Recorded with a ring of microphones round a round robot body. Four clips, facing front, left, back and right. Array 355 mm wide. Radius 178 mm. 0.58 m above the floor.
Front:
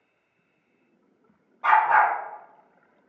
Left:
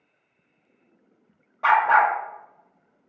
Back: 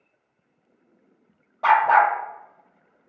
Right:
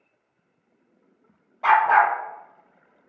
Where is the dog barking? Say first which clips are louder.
Right 1 dB, back 2 dB; 160° left, 1.5 m.